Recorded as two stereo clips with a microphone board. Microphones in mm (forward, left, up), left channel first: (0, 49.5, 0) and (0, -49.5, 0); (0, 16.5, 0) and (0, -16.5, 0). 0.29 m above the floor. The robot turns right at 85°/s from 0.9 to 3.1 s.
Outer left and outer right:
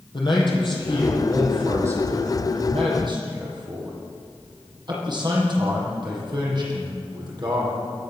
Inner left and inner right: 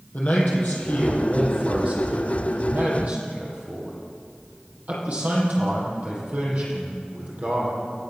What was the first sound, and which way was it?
A man speaking, 125° left.